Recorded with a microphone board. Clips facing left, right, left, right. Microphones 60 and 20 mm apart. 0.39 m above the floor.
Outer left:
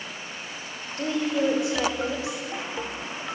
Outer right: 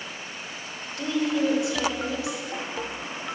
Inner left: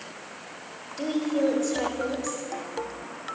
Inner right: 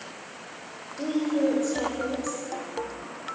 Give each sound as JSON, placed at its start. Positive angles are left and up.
{"t": 1.0, "sound": "a woman speaking", "side_deg": 25, "distance_m": 1.1}